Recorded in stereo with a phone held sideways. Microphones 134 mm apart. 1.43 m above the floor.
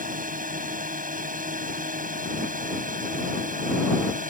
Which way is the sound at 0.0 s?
85° right.